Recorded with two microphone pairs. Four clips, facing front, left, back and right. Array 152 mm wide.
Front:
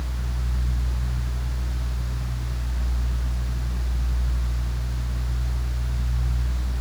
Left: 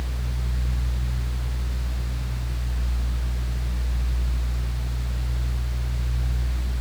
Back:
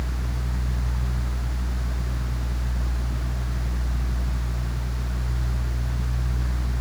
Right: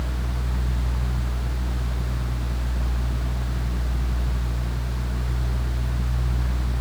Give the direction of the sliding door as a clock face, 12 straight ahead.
I don't hear a sliding door.